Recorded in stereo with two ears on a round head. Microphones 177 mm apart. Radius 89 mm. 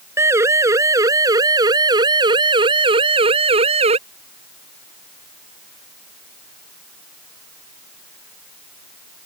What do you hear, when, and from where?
0.2 s a siren: 15° right (ahead or behind); by 4.0 s 35° right (ahead or behind)